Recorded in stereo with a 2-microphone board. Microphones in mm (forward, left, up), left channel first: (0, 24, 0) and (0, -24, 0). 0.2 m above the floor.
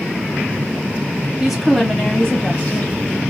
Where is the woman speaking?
10° right (ahead or behind), 1.7 m; by 2.9 s 30° left (ahead or behind), 1.7 m.